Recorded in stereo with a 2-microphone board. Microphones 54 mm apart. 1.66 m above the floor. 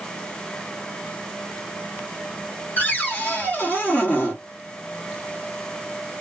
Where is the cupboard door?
30° left (ahead or behind), 1.2 m.